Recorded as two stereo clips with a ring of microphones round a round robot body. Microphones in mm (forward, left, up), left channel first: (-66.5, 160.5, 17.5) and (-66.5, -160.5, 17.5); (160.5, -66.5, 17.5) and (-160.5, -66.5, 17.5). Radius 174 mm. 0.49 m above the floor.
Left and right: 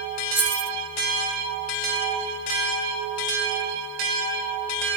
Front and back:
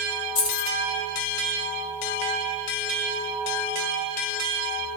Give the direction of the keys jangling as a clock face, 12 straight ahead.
12 o'clock.